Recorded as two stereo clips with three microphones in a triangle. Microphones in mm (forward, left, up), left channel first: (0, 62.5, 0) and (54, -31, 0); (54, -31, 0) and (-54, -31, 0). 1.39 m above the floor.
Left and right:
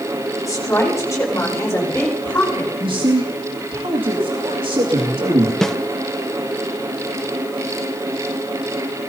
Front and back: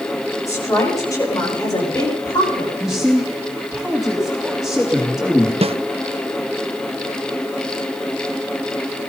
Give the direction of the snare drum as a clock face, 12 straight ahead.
5 o'clock.